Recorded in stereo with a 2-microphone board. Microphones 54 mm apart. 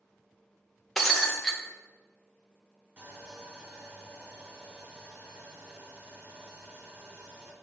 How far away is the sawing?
About 1.9 m.